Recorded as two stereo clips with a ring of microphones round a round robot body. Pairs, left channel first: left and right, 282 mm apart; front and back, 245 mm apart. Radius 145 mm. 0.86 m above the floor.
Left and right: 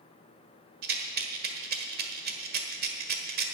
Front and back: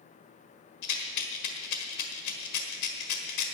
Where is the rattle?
35° right, 1.5 m.